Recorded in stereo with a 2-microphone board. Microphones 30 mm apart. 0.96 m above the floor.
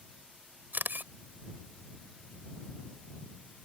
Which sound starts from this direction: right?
A camera shutter, at 0.7 s.